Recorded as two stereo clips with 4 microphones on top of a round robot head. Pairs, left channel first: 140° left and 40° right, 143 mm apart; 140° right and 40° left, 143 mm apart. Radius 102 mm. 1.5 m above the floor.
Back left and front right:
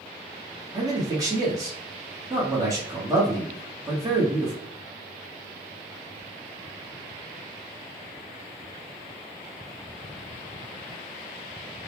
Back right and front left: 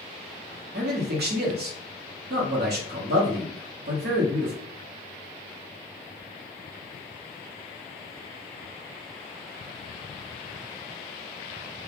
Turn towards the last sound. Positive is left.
turn(degrees=30)